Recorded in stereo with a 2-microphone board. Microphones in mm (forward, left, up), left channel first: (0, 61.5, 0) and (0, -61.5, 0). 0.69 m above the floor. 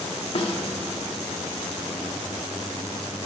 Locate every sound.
0.3 s a snare drum: 50° left (ahead or behind), 1.6 m